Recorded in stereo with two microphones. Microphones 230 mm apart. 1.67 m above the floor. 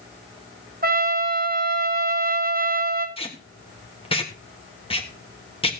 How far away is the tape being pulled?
About 1.3 m.